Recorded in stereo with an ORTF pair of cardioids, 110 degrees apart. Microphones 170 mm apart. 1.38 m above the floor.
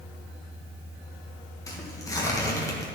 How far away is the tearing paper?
About 1.9 m.